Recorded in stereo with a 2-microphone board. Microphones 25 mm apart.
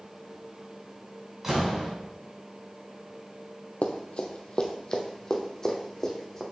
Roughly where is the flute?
I don't hear a flute.